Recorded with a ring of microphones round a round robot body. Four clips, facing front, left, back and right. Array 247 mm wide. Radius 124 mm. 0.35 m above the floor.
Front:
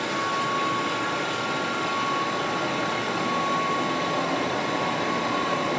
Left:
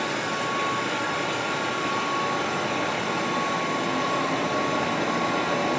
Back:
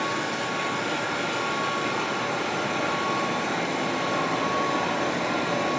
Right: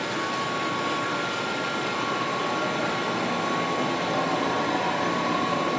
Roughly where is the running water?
Behind left.